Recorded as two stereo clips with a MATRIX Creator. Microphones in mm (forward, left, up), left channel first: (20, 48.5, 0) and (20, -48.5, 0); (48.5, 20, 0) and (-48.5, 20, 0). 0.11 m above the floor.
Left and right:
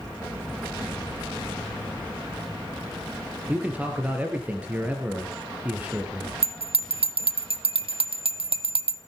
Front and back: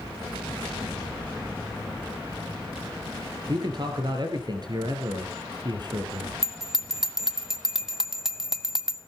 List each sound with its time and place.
3.5 s a man speaking: 160° right, 2.5 m
6.4 s a bell: 95° right, 0.8 m